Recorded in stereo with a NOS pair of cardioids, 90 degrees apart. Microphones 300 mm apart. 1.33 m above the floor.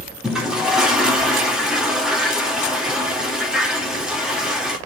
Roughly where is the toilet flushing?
Ahead.